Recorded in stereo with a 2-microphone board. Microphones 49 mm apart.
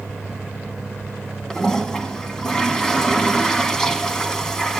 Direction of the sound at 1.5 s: 10° left (ahead or behind).